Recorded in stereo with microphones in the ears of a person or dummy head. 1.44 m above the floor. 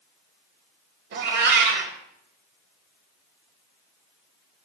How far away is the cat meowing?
About 1.9 m.